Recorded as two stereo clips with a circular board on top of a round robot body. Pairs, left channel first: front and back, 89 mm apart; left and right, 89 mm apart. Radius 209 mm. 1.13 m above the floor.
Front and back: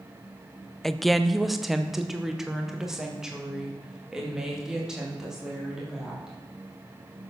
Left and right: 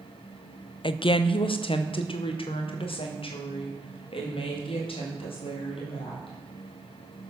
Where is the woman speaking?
85° left, 0.6 m; by 6.4 s 95° left, 3.5 m.